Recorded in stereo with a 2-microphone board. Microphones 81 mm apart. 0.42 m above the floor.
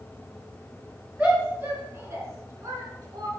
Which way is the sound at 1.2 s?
20° right (ahead or behind).